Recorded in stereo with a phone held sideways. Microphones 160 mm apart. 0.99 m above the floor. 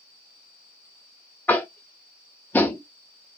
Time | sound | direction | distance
1.5 | tapping | 10° left (ahead or behind) | 0.5 m